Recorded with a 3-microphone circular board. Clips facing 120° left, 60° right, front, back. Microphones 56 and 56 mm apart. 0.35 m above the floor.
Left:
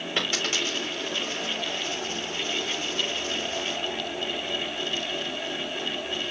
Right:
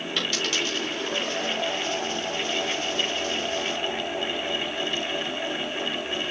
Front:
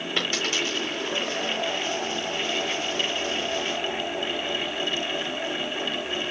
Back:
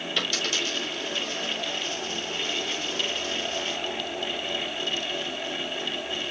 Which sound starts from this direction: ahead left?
A dropped coin, at 0.2 s.